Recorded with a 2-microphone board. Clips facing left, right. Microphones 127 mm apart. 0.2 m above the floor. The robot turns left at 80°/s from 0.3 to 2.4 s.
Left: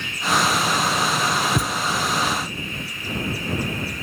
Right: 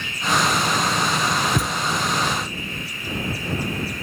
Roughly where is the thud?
Centre.